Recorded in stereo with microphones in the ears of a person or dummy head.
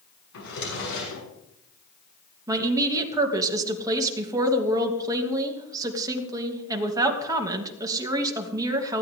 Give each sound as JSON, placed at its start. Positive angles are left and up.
{"t": 0.3, "sound": "a drawer", "side_deg": 70, "distance_m": 6.0}
{"t": 2.5, "sound": "a woman speaking", "side_deg": -20, "distance_m": 2.5}